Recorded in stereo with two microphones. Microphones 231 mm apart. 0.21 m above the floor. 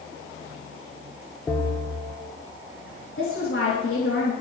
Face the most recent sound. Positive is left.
turn(degrees=65)  # may be behind; listen again after turning